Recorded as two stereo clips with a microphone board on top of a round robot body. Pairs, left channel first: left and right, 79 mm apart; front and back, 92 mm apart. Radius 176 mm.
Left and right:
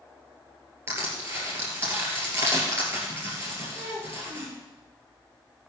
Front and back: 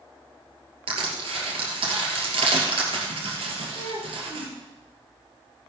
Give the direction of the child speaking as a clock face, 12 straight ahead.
2 o'clock.